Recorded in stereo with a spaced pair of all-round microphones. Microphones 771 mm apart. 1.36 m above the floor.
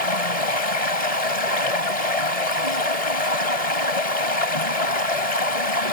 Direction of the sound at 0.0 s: 50° left (ahead or behind).